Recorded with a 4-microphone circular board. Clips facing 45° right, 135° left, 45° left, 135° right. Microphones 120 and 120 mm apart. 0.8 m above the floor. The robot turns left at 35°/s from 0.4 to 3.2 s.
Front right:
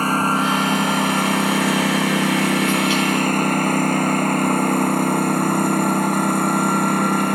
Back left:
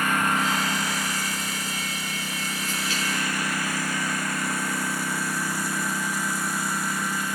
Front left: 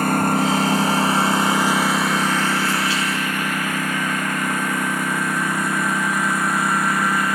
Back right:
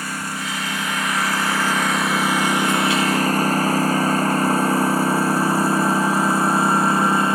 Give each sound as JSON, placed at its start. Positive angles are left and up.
{"t": 0.0, "sound": "a lawn mower", "azimuth_deg": 10}